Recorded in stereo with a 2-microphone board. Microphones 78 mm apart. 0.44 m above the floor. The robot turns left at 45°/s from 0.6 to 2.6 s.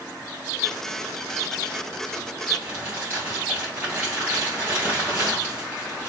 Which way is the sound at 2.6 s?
30° right (ahead or behind).